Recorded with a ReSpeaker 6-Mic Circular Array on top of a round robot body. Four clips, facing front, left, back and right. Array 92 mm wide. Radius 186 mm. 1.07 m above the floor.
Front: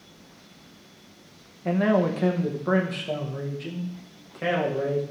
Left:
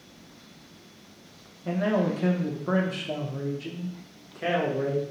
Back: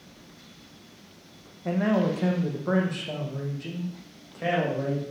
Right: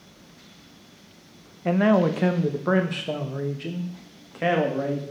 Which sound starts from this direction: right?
A man speaking, at 1.6 s.